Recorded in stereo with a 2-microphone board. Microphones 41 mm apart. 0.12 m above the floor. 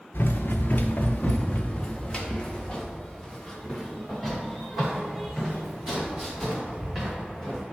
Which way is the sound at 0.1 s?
60° left (ahead or behind).